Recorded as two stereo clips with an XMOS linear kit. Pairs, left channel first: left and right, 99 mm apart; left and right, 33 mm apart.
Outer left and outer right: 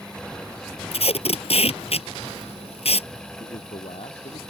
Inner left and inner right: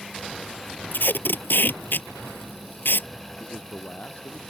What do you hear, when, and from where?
0.9 s tape being pulled: 75° left (ahead or behind)
3.4 s a man speaking: 70° left (ahead or behind)